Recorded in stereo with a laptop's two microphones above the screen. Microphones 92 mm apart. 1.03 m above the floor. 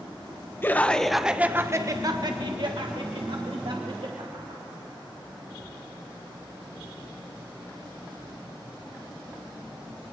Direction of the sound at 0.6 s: 25° left (ahead or behind).